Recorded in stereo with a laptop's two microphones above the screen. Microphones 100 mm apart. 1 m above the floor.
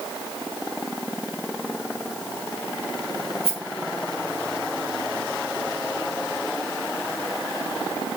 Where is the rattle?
75° right (ahead or behind), 4 m.